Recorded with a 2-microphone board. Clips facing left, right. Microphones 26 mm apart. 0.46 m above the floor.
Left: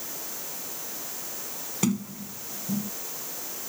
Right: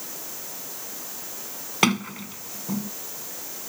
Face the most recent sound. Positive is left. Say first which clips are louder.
# right 6 dB
turn(degrees=-60)  # may be behind; listen again after turning